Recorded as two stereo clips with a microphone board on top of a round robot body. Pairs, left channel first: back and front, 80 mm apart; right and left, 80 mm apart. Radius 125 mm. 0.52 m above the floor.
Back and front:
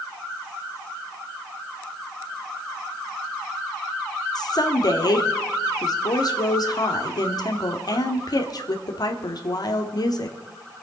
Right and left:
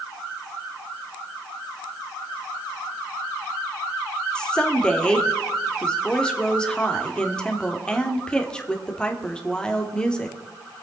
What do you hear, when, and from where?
4.3 s a woman speaking: 170° right, 1.9 m